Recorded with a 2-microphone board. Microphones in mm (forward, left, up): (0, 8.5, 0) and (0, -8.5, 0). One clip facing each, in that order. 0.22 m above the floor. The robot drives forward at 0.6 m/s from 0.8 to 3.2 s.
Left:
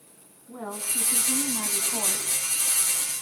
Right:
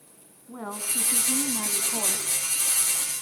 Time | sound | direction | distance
0.5 | a woman speaking | 20° right (ahead or behind) | 1.9 m